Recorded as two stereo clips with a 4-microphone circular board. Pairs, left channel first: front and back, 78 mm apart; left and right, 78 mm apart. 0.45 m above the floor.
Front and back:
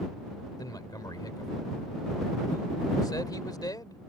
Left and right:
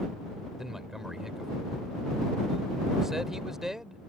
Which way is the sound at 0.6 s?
5° right.